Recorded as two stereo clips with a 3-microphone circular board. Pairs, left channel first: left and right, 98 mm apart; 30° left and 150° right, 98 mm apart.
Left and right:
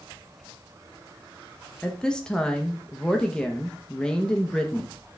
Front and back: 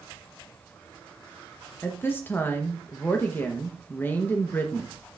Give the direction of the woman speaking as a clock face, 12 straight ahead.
11 o'clock.